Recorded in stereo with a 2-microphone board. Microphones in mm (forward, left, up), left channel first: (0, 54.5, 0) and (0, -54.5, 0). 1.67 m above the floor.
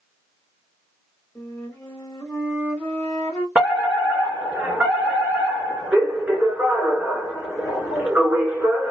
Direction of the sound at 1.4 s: 25° left (ahead or behind).